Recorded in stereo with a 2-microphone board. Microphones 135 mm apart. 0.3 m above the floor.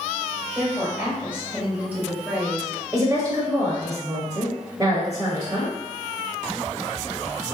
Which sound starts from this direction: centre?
A woman speaking, at 0.6 s.